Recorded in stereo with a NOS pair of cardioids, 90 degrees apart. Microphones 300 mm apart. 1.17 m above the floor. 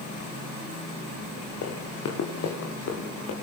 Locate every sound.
1.6 s running footsteps: 60° left, 5.5 m